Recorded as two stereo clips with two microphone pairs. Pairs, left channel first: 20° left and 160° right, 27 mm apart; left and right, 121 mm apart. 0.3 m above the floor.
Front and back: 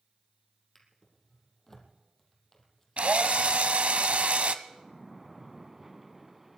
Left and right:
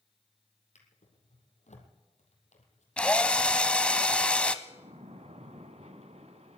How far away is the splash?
About 1.1 m.